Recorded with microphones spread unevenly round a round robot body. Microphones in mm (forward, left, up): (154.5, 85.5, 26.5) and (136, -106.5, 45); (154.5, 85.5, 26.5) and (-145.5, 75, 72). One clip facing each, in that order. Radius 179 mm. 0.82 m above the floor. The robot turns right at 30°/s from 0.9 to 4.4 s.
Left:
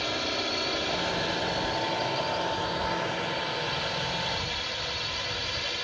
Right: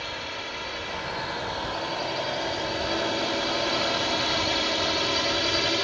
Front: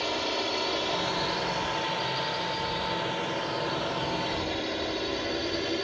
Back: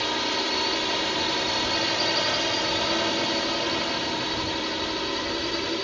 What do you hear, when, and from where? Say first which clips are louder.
0.0 s a drone: left 5 dB, back 2 dB; 125° left; by 5.8 s 100° right